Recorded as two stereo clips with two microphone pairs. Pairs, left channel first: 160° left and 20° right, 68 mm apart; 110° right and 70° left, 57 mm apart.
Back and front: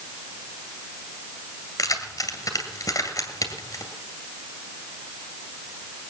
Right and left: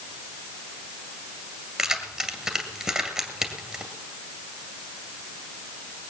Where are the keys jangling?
150° left, 1.9 m.